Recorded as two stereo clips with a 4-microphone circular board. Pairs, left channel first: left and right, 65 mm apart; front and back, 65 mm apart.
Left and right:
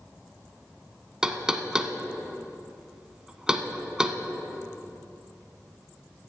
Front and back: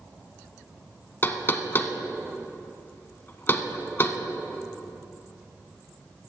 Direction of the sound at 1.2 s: 20° right.